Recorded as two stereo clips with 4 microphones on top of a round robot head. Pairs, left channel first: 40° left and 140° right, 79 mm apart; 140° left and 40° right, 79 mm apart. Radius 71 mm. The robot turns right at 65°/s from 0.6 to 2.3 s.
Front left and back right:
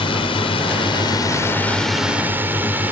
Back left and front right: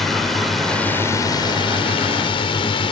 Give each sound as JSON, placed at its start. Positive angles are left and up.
{"t": 0.0, "sound": "a drone", "azimuth_deg": 50}